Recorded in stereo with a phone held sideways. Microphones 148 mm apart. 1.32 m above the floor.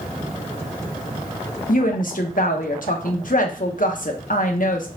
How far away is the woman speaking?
About 0.8 m.